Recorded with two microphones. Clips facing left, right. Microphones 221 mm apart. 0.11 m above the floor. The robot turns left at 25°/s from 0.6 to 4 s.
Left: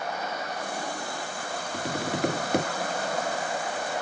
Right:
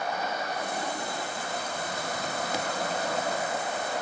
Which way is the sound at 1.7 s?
75° left (ahead or behind).